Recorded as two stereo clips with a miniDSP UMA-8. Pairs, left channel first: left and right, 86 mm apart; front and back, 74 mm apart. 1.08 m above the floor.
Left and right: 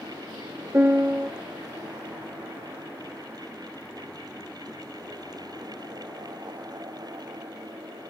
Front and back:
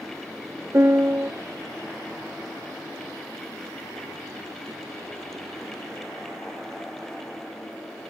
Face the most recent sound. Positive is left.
turn(degrees=-145)